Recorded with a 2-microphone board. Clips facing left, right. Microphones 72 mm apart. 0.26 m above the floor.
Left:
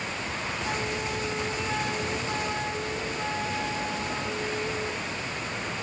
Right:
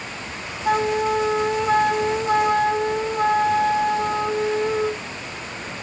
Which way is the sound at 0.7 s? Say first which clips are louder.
Right 15 dB; 55° right (ahead or behind).